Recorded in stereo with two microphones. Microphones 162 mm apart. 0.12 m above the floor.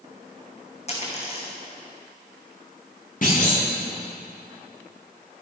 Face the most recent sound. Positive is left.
turn(degrees=55)  # may be behind; listen again after turning